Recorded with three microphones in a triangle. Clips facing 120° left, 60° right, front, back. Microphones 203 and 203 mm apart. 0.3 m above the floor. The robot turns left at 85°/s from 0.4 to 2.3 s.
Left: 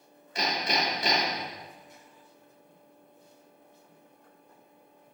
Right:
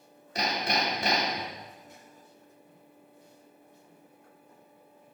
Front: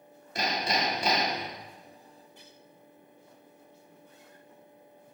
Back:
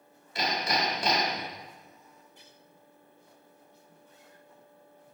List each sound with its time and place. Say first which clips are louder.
0.3 s hammering: even, even; 25° right, 1.9 m; by 1.5 s 115° right, 1.9 m